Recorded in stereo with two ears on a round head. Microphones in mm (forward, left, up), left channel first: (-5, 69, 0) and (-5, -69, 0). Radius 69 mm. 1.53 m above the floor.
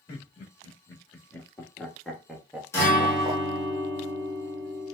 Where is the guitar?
15° left (ahead or behind), 2 m.